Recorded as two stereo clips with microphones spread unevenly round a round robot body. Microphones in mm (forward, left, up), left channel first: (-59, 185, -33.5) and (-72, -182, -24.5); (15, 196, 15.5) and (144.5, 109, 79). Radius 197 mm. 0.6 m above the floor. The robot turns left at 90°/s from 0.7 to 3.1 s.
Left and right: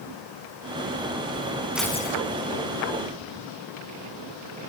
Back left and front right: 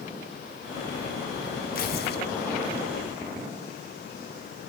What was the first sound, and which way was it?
Tearing paper, straight behind.